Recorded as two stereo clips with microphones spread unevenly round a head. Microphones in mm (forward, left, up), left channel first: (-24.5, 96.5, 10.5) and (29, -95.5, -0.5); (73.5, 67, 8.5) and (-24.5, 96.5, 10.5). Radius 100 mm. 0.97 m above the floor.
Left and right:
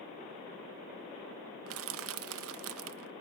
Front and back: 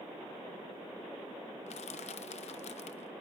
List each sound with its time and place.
1.7 s crushing: 55° right, 0.5 m